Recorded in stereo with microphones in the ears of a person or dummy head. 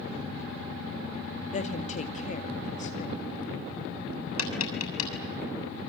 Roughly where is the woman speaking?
Left.